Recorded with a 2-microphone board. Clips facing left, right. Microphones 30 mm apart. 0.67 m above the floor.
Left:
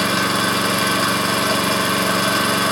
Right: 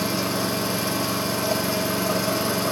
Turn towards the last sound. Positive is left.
turn(degrees=75)  # may be behind; listen again after turning